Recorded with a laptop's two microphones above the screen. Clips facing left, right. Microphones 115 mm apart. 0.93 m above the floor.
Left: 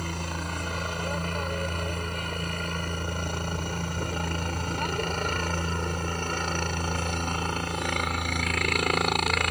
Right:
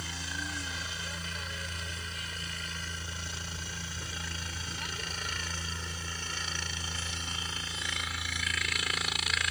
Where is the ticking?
I don't hear ticking.